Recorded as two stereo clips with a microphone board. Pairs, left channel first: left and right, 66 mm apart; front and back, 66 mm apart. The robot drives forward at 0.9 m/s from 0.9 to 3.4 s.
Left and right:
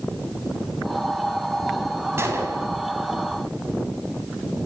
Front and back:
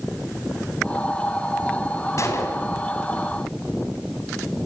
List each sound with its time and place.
2.2 s a gunshot: 40° right, 5 m; by 2.7 s 45° right, 5 m